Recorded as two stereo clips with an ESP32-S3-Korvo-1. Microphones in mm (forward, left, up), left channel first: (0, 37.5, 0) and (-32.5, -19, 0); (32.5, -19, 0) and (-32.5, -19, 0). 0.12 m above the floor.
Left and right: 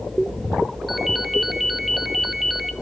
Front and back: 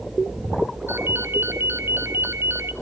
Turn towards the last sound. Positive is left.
turn(degrees=155)